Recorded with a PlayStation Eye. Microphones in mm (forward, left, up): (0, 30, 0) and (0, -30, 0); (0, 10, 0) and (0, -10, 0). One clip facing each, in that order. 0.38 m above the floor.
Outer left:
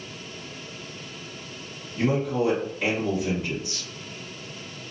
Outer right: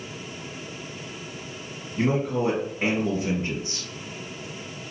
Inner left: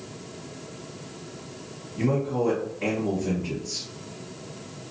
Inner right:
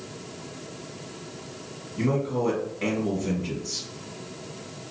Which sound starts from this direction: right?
A man speaking, at 2.0 s.